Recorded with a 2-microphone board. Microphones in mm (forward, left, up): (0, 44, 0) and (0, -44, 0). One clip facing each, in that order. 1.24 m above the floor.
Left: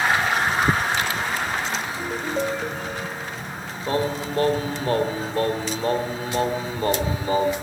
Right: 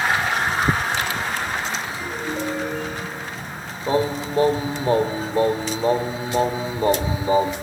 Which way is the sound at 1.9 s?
40° left (ahead or behind).